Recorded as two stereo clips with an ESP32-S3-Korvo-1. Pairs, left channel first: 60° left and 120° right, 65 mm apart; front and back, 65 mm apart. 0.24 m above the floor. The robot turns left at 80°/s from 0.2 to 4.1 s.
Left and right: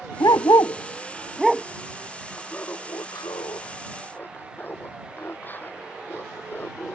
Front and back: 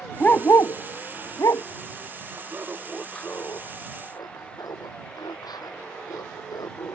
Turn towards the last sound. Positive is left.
turn(degrees=0)